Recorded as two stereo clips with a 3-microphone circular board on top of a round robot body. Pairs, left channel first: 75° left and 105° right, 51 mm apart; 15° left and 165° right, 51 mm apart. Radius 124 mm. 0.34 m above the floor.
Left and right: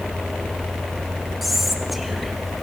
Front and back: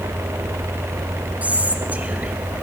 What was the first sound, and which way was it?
Whispering, 170° left.